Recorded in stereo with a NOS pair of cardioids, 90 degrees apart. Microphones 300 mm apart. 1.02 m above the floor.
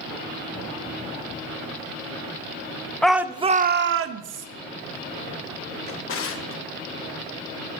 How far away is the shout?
About 0.7 m.